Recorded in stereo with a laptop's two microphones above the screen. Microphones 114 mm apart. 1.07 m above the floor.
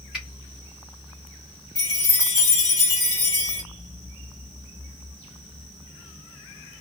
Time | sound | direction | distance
0.1 | a finger snap | 5° right (ahead or behind) | 1.5 m
1.8 | a chime | 20° left (ahead or behind) | 1.8 m